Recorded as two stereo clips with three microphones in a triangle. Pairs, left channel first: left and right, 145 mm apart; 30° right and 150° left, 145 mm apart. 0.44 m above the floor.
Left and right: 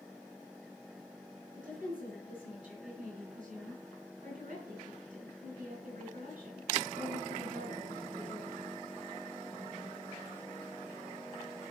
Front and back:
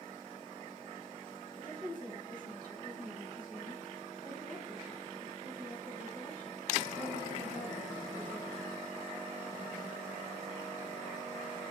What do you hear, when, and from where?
1.5 s a woman speaking: 60° right, 4 m